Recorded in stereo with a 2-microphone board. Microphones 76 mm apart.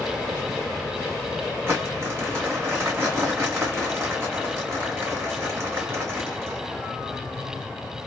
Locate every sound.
1.7 s crumpling: 30° right (ahead or behind), 1.9 m